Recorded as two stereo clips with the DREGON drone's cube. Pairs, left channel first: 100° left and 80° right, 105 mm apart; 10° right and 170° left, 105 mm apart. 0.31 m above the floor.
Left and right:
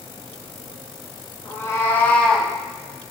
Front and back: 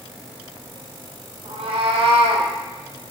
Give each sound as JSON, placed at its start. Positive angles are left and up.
{"t": 1.4, "sound": "a cat meowing", "azimuth_deg": 160, "distance_m": 1.5}